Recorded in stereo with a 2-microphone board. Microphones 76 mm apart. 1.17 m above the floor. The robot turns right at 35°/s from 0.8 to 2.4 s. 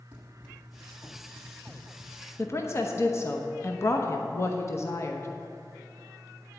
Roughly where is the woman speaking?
Left.